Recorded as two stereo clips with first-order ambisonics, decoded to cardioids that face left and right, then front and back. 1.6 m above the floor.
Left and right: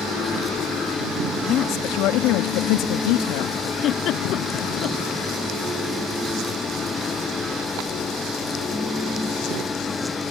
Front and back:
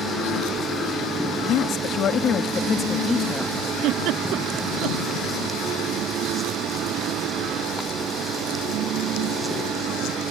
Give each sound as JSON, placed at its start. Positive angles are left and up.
{"t": 1.4, "sound": "a woman speaking", "azimuth_deg": 40}
{"t": 3.8, "sound": "a giggle", "azimuth_deg": 140}